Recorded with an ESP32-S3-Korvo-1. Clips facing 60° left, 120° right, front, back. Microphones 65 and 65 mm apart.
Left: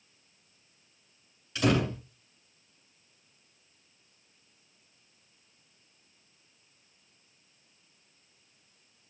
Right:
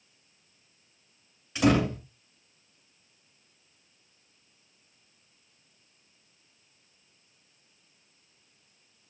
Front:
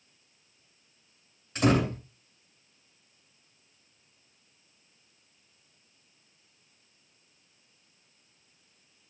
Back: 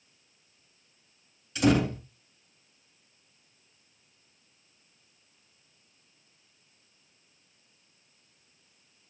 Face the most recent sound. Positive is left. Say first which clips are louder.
# right 3 dB, back 1 dB
turn(degrees=-50)